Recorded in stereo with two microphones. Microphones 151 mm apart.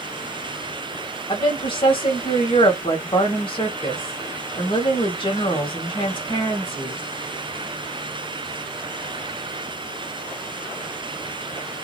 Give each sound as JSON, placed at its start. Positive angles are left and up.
{"t": 1.3, "sound": "a woman speaking", "side_deg": 35, "distance_m": 1.5}